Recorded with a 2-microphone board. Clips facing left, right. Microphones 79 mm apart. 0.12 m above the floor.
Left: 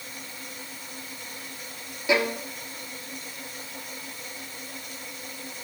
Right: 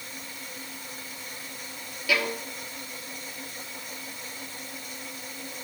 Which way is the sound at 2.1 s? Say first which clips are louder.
Left 4 dB; 25° left (ahead or behind).